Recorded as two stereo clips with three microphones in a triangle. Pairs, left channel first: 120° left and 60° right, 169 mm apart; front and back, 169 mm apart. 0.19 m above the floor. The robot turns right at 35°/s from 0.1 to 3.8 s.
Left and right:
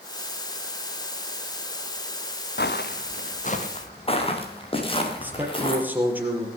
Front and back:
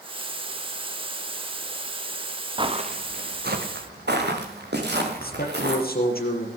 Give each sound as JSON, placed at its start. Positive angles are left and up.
{"t": 2.6, "sound": "footsteps", "azimuth_deg": 120, "distance_m": 1.5}
{"t": 5.2, "sound": "a man speaking", "azimuth_deg": 20, "distance_m": 4.0}